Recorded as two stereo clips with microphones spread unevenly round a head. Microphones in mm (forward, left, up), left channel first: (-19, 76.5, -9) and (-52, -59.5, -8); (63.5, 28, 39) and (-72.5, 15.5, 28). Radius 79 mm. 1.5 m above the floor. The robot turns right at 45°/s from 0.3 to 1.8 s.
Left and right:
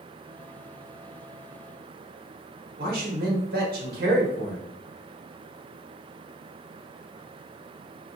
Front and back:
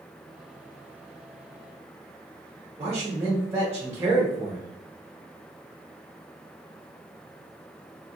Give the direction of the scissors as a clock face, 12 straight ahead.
No scissors in this recording.